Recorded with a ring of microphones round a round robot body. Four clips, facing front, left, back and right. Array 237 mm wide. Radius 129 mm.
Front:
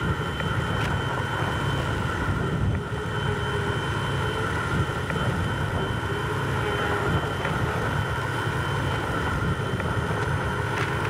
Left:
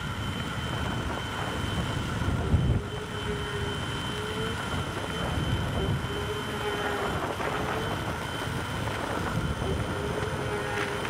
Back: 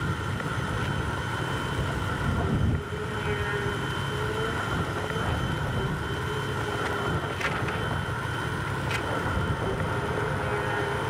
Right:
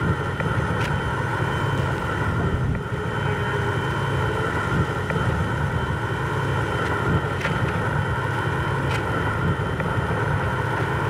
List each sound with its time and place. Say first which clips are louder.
0.0 s an insect: right 10 dB, front 3 dB; 80° right